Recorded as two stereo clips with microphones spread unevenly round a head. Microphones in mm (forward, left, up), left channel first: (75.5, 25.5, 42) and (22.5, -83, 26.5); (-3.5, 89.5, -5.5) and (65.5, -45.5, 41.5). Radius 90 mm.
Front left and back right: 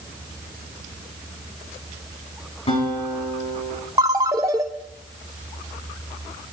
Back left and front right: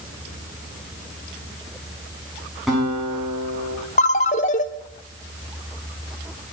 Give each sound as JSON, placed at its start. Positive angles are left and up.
{"t": 2.7, "sound": "a guitar", "azimuth_deg": 25, "distance_m": 9.5}
{"t": 4.0, "sound": "a ringtone", "azimuth_deg": 170, "distance_m": 0.6}